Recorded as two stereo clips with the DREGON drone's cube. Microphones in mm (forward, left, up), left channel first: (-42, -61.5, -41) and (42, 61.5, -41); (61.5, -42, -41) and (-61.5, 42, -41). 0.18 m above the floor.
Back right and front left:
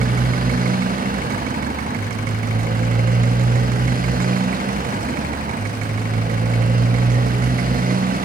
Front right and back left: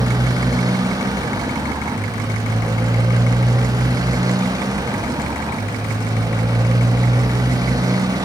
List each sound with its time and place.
0.0 s a motorcycle: 80° left